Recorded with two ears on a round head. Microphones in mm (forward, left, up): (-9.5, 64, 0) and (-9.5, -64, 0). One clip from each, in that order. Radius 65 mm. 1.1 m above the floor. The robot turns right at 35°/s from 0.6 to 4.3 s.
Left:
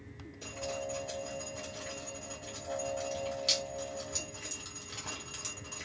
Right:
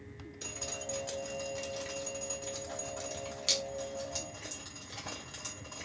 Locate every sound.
0.4 s dripping: 55° right (ahead or behind), 1.4 m; by 5.9 s 10° left (ahead or behind), 1.4 m